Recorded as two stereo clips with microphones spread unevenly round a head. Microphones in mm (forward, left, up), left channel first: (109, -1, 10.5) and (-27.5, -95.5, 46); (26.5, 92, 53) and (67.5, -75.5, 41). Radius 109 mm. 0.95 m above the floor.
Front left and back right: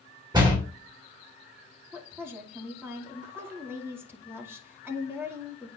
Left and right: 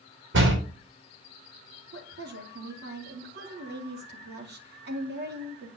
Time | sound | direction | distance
0.3 | a door slam | 80° right | 3 m
1.9 | a woman speaking | 65° right | 2.5 m